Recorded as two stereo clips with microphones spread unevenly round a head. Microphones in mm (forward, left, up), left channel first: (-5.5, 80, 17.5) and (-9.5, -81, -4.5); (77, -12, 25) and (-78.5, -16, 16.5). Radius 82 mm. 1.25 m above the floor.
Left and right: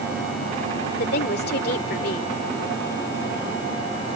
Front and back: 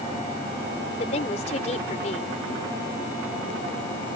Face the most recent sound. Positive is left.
turn(degrees=55)